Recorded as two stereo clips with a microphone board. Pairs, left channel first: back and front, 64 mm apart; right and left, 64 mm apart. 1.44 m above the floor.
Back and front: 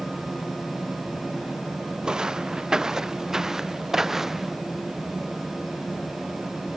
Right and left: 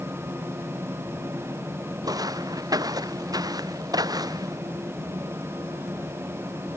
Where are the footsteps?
80° left; by 4.6 s 85° left.